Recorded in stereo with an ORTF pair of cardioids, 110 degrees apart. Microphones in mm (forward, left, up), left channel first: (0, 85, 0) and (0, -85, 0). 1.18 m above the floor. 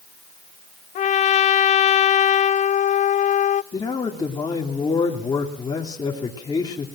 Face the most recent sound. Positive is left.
turn(degrees=25)